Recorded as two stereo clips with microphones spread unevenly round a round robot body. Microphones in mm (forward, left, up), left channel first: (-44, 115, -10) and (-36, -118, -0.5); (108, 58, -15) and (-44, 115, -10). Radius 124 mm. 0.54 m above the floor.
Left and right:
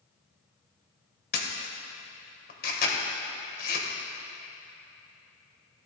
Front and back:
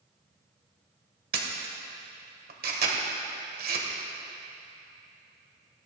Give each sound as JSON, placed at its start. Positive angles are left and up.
{"t": 1.3, "sound": "a camera shutter", "azimuth_deg": 140, "distance_m": 1.7}